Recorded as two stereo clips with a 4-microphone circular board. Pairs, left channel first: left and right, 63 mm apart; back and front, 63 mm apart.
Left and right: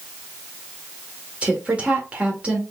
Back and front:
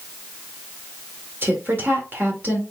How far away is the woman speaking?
About 1.6 m.